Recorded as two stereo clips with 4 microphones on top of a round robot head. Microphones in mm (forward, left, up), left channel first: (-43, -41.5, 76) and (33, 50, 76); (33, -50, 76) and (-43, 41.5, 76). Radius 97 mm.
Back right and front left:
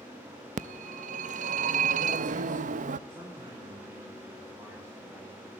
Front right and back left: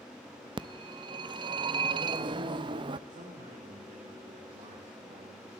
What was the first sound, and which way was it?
A phone ringing, 75° left.